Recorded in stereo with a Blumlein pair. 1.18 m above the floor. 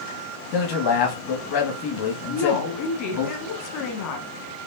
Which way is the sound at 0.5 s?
45° left.